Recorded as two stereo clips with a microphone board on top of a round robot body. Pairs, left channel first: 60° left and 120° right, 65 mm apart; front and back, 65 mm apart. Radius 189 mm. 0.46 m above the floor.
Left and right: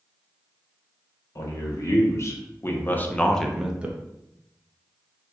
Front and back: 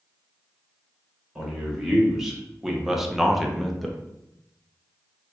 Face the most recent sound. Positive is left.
turn(degrees=-85)